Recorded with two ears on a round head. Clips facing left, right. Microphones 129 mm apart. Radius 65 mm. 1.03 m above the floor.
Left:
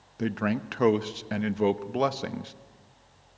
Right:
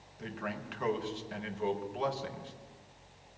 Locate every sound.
0.2 s a man speaking: 75° left (ahead or behind), 0.9 m